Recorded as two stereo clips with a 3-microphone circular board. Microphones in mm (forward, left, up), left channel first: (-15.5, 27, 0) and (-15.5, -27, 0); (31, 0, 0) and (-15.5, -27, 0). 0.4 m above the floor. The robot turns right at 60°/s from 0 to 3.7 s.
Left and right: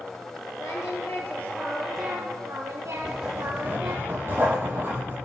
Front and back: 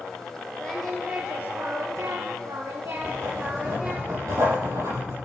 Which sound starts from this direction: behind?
Writing, at 3.0 s.